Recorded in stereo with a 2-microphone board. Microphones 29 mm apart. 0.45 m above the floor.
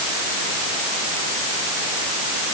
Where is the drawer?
I don't hear a drawer.